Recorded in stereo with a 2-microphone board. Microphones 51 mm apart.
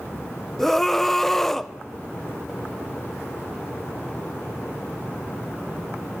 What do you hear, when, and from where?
0.6 s a scream: 5° left (ahead or behind), 0.8 m